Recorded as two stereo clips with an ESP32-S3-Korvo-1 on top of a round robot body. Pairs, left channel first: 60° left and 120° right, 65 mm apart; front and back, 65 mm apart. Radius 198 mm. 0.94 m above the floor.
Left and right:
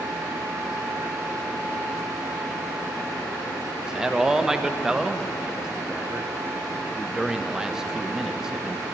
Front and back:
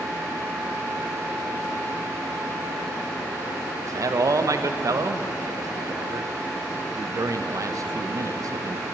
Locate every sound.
3.8 s a man speaking: 160° left, 0.8 m